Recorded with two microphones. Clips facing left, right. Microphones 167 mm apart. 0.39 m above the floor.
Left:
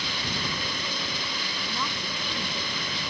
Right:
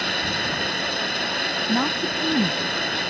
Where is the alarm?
I don't hear an alarm.